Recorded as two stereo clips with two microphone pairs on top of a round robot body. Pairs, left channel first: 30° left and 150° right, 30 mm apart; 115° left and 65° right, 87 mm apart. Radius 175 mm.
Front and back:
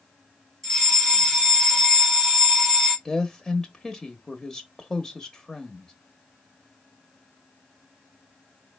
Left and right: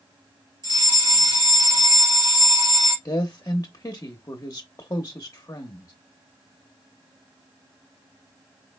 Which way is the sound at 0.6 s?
45° right.